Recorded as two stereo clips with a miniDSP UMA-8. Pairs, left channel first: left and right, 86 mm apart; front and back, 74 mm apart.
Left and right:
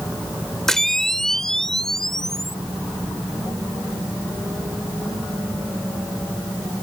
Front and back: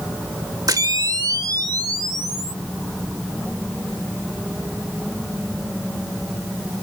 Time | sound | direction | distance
0.7 | a camera shutter | 175° left | ?